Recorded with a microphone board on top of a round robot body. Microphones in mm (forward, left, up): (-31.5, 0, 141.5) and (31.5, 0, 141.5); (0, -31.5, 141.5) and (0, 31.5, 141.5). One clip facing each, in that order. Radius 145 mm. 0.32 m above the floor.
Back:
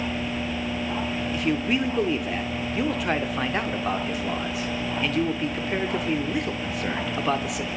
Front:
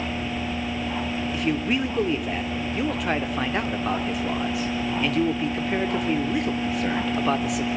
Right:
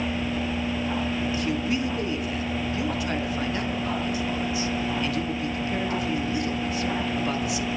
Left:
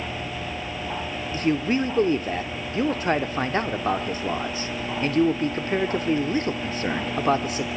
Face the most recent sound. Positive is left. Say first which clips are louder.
# even, left 8 dB
turn(degrees=90)